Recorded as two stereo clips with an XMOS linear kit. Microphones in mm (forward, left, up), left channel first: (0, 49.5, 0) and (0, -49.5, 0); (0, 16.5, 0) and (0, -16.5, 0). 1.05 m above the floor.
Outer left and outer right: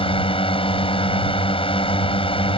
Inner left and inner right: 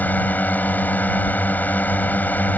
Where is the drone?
65° left (ahead or behind).